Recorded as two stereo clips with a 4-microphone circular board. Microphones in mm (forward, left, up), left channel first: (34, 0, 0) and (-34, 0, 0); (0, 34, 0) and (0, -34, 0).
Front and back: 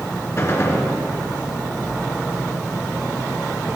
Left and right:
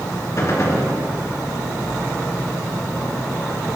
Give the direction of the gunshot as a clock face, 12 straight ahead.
10 o'clock.